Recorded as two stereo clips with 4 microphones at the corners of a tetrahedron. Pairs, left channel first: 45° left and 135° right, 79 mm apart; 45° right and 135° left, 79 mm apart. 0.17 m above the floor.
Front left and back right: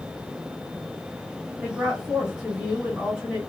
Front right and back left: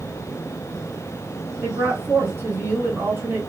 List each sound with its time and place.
1.6 s a woman speaking: 155° left, 1.5 m